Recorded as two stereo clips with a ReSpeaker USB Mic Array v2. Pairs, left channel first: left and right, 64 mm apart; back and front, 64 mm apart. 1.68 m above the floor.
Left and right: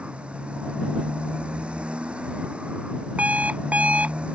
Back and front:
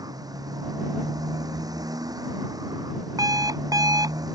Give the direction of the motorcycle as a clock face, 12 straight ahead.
1 o'clock.